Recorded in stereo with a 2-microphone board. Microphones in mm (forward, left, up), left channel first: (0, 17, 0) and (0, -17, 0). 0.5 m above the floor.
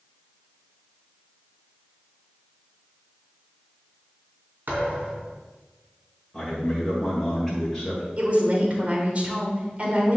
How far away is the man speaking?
About 2 m.